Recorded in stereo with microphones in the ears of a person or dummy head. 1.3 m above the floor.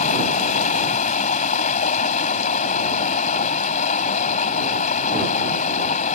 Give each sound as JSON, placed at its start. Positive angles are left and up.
{"t": 0.0, "sound": "running water", "side_deg": 50}